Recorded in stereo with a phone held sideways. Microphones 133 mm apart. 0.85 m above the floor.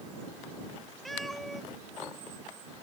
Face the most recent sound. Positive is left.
turn(degrees=0)  # may be behind; listen again after turning